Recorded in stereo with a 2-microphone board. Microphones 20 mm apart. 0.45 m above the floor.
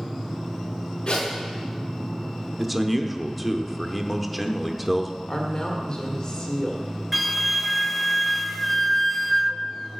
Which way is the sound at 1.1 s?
45° left (ahead or behind).